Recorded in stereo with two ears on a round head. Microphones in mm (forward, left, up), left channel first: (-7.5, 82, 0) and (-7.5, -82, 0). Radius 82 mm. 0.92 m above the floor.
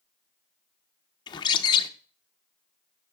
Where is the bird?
25° left (ahead or behind), 0.5 m.